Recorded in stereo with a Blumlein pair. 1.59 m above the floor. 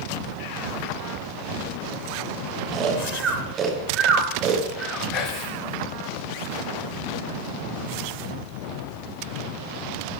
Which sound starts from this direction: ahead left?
Whispering, at 5.1 s.